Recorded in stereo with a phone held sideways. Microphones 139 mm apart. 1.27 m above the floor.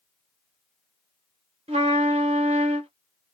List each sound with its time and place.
1.7 s a trumpet: 45° right (ahead or behind), 0.9 m